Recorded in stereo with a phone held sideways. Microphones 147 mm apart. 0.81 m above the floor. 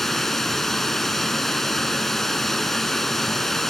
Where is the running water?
Centre (ahead or behind), 0.8 m.